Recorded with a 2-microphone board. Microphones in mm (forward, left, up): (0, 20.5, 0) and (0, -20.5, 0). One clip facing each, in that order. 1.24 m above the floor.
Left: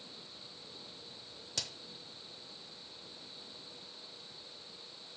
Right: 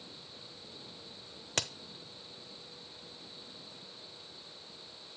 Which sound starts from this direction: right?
A crack, at 1.6 s.